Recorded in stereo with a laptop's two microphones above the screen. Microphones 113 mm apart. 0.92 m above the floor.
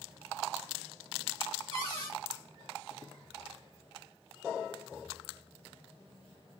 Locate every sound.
1.7 s a cupboard door: 70° right (ahead or behind), 2.0 m